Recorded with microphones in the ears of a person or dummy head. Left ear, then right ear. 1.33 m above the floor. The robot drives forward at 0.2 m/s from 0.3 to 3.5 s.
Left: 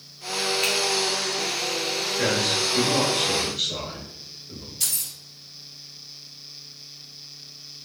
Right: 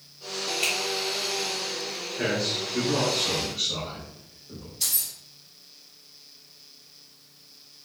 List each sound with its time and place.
0.6 s a finger snap: 25° right (ahead or behind), 1.8 m
2.2 s a man speaking: 5° left (ahead or behind), 1.0 m
4.8 s keys jangling: 25° left (ahead or behind), 1.4 m